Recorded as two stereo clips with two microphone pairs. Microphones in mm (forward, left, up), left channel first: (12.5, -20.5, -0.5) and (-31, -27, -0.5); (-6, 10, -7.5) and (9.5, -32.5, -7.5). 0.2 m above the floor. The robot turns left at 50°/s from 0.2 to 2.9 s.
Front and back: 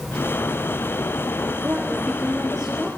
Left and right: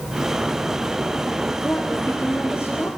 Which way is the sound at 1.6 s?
135° left.